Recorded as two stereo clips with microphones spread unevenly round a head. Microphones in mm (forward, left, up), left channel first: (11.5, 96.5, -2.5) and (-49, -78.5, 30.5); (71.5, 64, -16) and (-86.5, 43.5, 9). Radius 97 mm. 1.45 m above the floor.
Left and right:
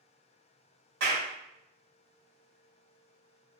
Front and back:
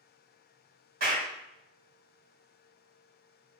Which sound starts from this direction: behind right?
A clap, at 1.0 s.